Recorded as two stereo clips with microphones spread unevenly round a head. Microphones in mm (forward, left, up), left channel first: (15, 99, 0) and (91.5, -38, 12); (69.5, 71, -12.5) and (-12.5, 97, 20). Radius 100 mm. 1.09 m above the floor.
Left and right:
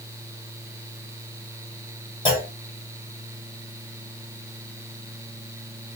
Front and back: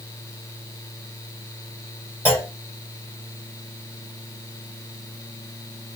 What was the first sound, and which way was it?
A clunk, 60° left.